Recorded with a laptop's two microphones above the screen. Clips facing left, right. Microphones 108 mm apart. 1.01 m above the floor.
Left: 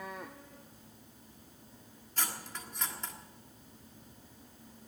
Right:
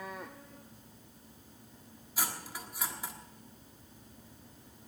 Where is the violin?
No violin in this recording.